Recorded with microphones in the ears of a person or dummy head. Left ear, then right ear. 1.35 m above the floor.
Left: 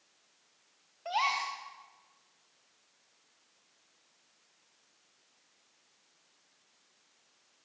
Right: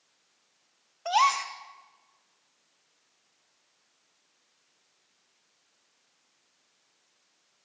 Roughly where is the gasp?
Right.